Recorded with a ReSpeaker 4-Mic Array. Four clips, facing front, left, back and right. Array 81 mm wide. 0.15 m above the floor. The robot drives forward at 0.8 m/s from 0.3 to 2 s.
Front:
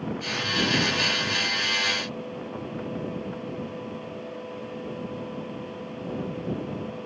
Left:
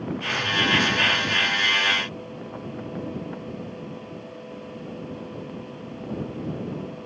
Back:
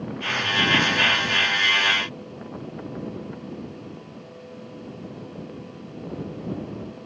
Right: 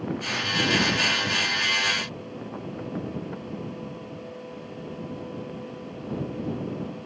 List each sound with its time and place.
Only background noise.